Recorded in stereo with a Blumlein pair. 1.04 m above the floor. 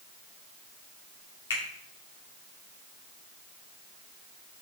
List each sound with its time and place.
1.5 s a finger snap: 60° left, 3 m